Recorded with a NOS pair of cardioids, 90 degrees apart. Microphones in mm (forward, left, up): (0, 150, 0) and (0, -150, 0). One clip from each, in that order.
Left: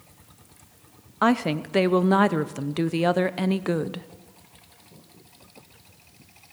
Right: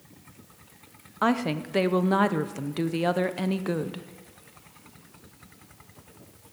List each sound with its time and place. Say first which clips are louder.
1.2 s a woman speaking: left 3 dB; 15° left, 0.6 m